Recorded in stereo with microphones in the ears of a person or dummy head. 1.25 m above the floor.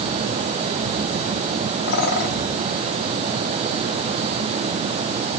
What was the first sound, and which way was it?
A bird, 55° left (ahead or behind).